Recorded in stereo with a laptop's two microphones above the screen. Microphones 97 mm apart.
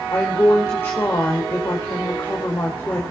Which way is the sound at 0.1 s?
25° left (ahead or behind).